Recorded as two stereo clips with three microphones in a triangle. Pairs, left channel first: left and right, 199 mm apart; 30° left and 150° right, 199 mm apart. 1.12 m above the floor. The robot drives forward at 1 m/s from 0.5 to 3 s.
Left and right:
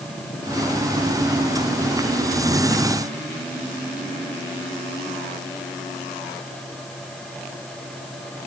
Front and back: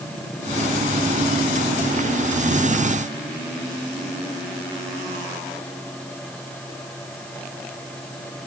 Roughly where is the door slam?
No door slam in this recording.